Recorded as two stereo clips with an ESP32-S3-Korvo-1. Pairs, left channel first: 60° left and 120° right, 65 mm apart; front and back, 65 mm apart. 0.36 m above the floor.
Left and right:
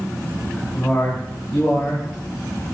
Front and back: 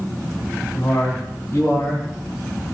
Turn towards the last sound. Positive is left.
turn(degrees=45)